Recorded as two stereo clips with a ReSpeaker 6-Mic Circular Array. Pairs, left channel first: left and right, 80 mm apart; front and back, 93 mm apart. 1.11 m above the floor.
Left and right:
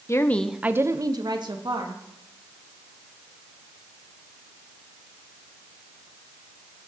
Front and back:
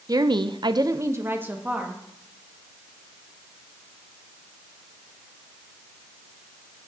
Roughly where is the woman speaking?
Behind left.